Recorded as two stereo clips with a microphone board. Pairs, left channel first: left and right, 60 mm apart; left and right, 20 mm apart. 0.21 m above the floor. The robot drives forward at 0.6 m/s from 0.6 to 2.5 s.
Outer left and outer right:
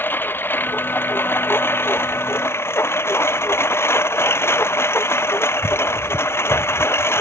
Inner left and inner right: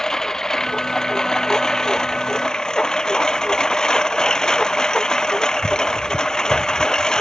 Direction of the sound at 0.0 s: 35° left (ahead or behind).